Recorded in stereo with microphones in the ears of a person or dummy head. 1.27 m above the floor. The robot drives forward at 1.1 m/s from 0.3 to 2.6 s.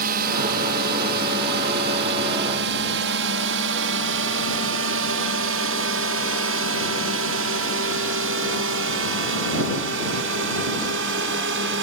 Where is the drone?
50° right (ahead or behind); by 11.8 s 65° right (ahead or behind).